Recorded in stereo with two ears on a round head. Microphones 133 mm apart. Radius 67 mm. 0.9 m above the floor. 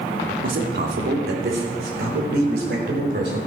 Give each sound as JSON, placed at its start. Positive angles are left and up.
{"t": 0.4, "sound": "a man speaking", "side_deg": -70, "distance_m": 2.5}